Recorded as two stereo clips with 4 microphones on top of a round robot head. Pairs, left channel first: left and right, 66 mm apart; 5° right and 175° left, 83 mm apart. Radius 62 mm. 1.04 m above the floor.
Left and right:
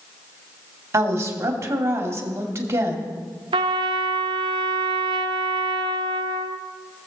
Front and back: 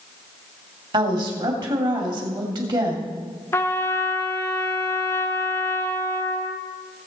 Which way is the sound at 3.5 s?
75° right.